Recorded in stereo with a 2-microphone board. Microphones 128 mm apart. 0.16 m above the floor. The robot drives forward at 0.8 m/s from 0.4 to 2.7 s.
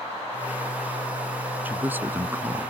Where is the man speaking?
15° right (ahead or behind); by 2.7 s 20° right (ahead or behind).